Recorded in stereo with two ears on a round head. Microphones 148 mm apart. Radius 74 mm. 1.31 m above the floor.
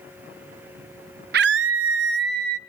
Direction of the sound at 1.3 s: 60° right (ahead or behind).